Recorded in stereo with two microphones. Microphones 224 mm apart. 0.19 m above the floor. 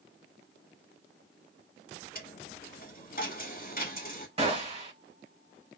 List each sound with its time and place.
2.1 s a dropped coin: 40° left (ahead or behind), 1.2 m
4.4 s a gunshot: 25° right (ahead or behind), 1.8 m